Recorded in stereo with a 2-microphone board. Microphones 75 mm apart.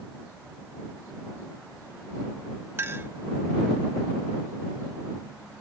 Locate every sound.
2.8 s a clink: 30° right (ahead or behind)